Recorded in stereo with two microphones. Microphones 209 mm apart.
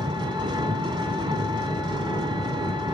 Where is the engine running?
20° right (ahead or behind), 1.7 m.